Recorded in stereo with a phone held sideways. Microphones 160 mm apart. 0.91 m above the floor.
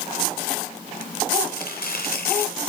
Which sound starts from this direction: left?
Chopping, at 1.5 s.